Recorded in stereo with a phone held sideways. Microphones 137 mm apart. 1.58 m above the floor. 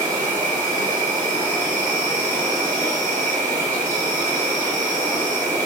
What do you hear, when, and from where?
0.0 s an insect: 65° right (ahead or behind), 2 m